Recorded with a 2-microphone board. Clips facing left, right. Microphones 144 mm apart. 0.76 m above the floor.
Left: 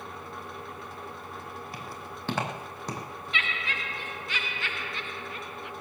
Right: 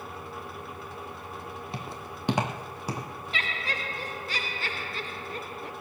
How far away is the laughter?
About 0.6 m.